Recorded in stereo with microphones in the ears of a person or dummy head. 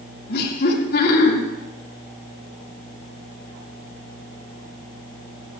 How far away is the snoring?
I don't hear snoring.